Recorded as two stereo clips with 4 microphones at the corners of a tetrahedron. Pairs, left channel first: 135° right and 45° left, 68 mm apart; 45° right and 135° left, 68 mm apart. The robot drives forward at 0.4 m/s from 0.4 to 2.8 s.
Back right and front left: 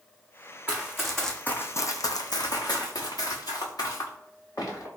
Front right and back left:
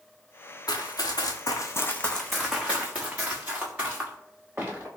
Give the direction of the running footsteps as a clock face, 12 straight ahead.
1 o'clock.